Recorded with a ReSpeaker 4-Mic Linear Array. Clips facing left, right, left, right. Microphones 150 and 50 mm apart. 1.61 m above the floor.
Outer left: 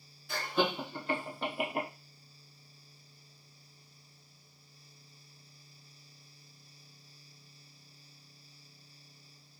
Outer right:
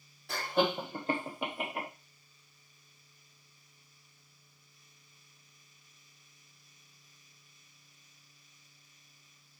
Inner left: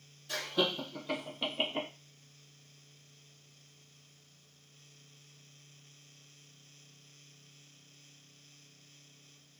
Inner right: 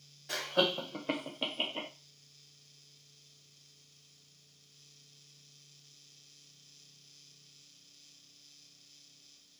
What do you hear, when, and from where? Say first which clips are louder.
0.3 s laughter: outer right 2 dB, inner right 2 dB; 70° right (ahead or behind), 1.6 m; by 1.9 s 35° left (ahead or behind), 0.8 m